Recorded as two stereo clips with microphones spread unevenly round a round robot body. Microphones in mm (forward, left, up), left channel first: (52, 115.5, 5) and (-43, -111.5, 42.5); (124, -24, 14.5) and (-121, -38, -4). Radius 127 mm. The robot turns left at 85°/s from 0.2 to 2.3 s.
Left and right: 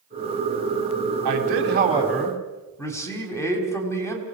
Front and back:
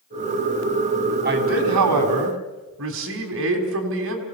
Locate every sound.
1.2 s a man speaking: 125° right, 4 m; by 4.2 s 145° left, 4 m